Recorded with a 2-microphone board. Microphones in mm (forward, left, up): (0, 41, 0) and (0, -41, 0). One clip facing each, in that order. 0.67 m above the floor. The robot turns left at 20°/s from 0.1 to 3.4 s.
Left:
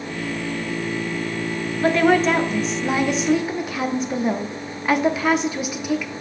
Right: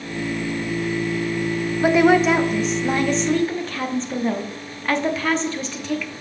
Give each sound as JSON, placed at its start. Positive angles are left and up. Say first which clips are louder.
{"t": 1.8, "sound": "a woman speaking", "louder": "right 2 dB", "azimuth_deg": -165, "distance_m": 0.7}